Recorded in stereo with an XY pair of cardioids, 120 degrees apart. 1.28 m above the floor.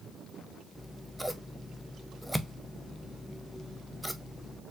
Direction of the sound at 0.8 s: Straight ahead.